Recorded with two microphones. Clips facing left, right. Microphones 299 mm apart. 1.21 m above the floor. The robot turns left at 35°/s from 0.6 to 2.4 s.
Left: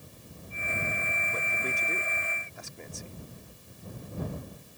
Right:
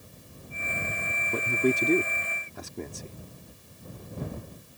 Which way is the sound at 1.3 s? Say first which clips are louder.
Right 15 dB; 70° right (ahead or behind).